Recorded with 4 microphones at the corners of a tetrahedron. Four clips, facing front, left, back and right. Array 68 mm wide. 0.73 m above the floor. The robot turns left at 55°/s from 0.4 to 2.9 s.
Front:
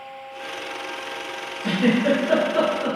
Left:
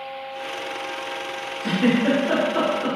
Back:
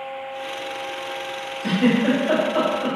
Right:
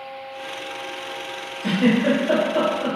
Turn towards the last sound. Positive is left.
turn(degrees=170)